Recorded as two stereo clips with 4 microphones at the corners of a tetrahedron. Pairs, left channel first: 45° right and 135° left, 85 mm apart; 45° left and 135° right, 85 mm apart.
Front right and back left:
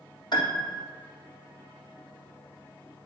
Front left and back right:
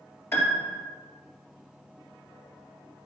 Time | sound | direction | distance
0.3 | a piano | 15° right | 3 m